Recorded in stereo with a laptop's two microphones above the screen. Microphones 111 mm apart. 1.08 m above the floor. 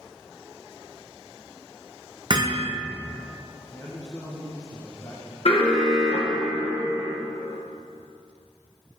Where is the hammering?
40° right (ahead or behind), 0.6 m.